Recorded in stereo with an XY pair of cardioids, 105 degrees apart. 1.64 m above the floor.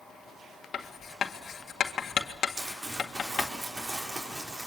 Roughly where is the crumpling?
Ahead right.